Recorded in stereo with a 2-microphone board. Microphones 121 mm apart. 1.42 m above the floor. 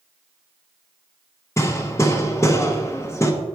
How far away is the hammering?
About 0.8 m.